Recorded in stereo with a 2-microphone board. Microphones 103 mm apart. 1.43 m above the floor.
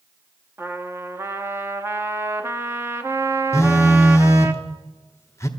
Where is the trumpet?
25° right (ahead or behind), 1.0 m.